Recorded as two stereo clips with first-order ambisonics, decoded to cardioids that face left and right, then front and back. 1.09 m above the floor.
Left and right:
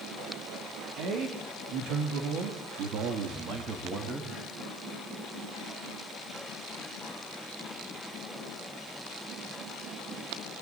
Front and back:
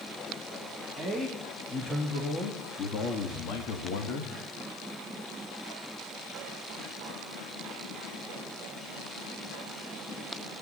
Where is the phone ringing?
No phone ringing in this recording.